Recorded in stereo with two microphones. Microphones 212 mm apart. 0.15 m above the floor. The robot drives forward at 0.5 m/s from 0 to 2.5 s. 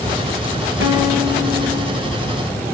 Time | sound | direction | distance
0.8 | a guitar | 70° right (ahead or behind) | 3 m